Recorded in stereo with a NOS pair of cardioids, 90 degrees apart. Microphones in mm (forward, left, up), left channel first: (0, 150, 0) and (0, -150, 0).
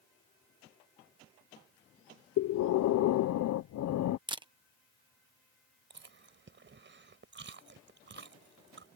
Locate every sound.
2.4 s breathing: 65° left
4.3 s a camera shutter: 15° right
5.9 s chewing: 40° right